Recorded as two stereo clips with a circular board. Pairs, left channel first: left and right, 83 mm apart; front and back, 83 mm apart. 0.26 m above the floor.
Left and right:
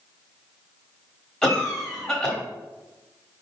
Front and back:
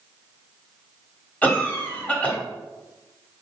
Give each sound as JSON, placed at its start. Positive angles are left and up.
{"t": 1.4, "sound": "a cough", "azimuth_deg": 20, "distance_m": 1.1}